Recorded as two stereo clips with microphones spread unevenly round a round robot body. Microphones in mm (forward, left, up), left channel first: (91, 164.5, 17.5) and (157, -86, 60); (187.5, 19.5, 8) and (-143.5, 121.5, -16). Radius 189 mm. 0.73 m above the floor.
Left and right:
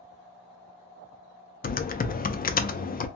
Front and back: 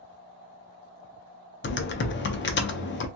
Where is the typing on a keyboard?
45° left, 0.5 m.